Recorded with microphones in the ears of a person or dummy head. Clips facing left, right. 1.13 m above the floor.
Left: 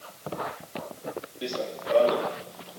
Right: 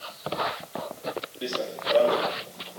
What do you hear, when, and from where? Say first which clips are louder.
1.4 s running footsteps: even; 5° right (ahead or behind); by 2.8 s centre (ahead or behind)